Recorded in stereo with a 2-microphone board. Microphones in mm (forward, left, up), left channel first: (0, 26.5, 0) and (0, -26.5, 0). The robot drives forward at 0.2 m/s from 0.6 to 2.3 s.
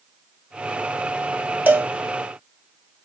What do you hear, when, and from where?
1.7 s a cowbell: 35° right (ahead or behind), 0.5 m